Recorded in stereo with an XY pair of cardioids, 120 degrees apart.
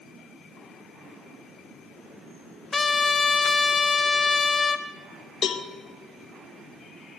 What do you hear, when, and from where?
2.7 s a trumpet: 25° left, 0.6 m
5.4 s a cowbell: 45° left, 0.8 m